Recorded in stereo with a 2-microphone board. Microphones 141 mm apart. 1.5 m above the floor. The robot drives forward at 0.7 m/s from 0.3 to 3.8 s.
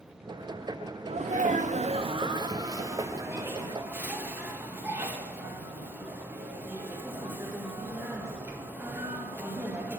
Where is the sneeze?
50° right (ahead or behind), 0.5 m; by 10.0 s 15° right (ahead or behind), 1.7 m.